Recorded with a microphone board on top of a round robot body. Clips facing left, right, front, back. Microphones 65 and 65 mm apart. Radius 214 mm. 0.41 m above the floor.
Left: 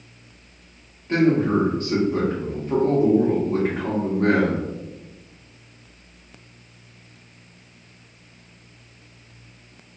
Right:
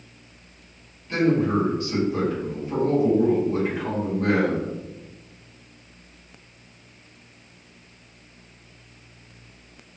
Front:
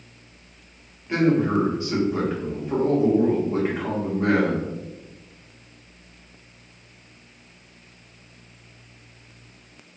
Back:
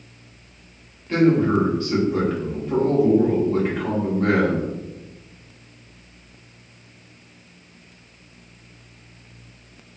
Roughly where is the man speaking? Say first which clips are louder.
Left 2 dB, back 3 dB; left.